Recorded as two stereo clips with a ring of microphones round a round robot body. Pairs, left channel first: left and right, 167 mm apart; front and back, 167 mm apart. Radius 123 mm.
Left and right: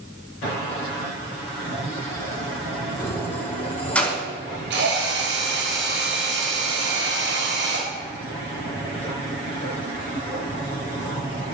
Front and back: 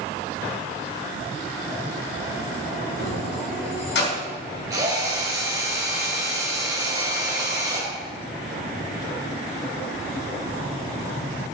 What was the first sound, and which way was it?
Keys jangling, 15° left.